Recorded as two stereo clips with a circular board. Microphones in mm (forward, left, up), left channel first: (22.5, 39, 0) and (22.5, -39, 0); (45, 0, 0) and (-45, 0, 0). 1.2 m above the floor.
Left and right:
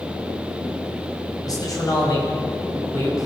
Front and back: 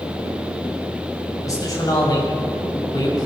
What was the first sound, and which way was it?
A man speaking, 50° left.